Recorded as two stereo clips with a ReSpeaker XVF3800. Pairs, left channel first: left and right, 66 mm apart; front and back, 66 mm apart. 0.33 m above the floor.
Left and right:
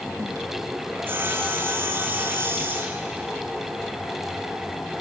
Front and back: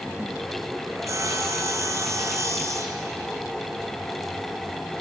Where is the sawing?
135° right, 1.2 m.